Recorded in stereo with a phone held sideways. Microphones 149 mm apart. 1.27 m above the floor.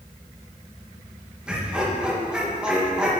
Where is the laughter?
5° right (ahead or behind), 1.7 m.